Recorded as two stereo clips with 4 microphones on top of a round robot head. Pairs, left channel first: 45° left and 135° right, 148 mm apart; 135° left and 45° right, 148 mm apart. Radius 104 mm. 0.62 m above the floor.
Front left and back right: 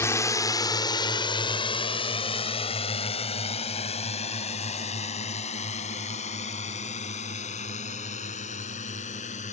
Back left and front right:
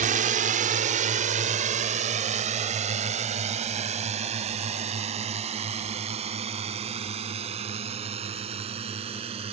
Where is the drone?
25° right; by 9.5 s 5° left.